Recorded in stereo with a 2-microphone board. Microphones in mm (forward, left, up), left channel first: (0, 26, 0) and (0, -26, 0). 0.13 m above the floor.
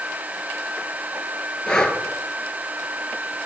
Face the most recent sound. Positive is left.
turn(degrees=15)  # may be behind; listen again after turning